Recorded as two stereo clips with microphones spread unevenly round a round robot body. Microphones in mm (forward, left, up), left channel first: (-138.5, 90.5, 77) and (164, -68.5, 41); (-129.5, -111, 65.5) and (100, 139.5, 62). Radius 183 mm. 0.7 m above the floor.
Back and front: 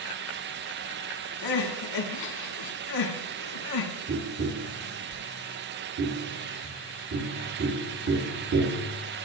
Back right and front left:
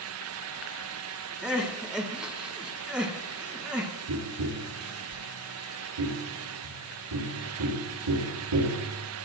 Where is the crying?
135° left, 1.7 m.